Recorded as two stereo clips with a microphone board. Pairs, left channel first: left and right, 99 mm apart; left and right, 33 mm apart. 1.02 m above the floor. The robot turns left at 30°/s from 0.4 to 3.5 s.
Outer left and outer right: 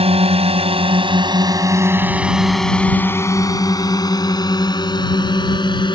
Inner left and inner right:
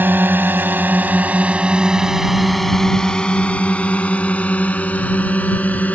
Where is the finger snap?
I don't hear a finger snap.